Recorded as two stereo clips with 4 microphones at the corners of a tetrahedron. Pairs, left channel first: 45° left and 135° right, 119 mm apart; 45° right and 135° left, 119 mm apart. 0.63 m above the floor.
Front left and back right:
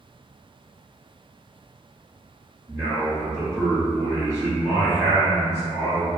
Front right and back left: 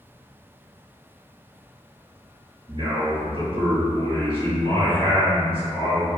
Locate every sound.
2.7 s a man speaking: 165° left, 1.1 m